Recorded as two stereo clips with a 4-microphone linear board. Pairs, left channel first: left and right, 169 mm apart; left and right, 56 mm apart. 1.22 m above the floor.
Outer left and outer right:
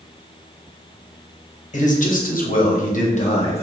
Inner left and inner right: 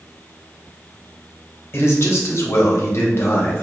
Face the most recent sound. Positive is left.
turn(degrees=40)  # may be behind; listen again after turning